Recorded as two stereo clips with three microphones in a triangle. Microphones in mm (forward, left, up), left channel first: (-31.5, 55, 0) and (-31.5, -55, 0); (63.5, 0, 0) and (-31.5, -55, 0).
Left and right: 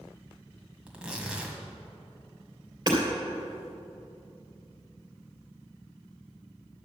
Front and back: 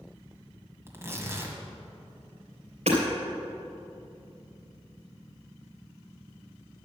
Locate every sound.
0.9 s tearing paper: 155° right, 1.7 m
2.9 s hammering: 145° right, 3 m